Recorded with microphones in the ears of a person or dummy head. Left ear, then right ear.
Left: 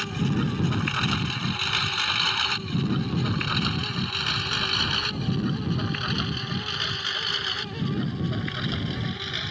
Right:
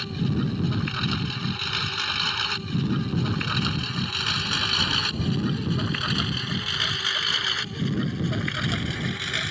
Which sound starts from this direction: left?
A lawn mower, at 0.0 s.